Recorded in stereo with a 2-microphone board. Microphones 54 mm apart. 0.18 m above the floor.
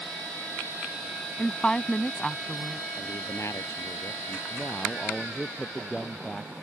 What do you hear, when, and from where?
1.4 s a woman speaking: 15° left (ahead or behind)
3.0 s a man speaking: 60° left (ahead or behind)
4.5 s a man speaking: 10° left (ahead or behind)